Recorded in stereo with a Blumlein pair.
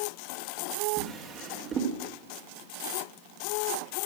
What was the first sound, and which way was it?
A drawer, 25° right.